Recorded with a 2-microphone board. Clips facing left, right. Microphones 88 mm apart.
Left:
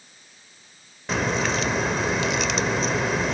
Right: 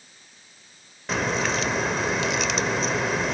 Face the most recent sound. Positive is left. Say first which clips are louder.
# left 1 dB
turn(degrees=0)  # may be behind; listen again after turning